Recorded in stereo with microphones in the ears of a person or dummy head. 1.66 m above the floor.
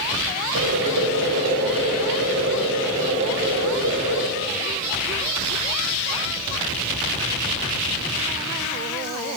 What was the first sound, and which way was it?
Boiling, 65° right (ahead or behind).